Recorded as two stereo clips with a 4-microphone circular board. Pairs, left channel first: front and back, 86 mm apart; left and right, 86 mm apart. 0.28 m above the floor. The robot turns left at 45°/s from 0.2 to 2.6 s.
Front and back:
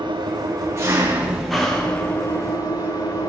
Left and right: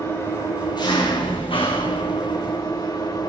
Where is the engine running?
150° left, 6 m; by 3.3 s 40° left, 6 m.